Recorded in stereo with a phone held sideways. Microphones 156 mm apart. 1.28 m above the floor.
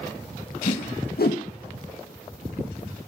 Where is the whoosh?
80° left, 0.7 m.